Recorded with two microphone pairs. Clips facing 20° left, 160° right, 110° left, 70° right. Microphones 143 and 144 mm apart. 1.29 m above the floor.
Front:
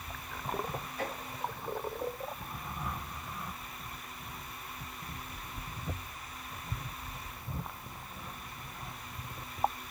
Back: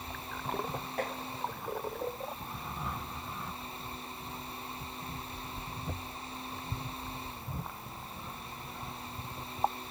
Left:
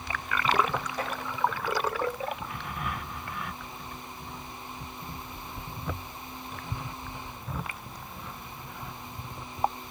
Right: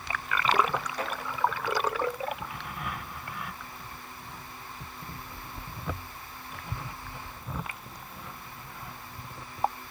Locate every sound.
1.0 s tapping: 170° right, 9 m